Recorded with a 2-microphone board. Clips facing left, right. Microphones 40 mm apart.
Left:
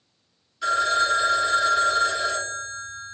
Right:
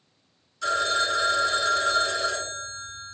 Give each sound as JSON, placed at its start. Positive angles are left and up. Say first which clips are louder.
{"t": 0.6, "sound": "a phone ringing", "louder": "left 3 dB", "side_deg": 15, "distance_m": 0.8}